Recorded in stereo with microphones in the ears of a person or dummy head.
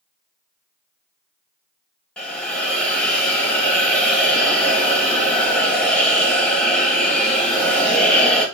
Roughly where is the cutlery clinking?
No cutlery clinking in this recording.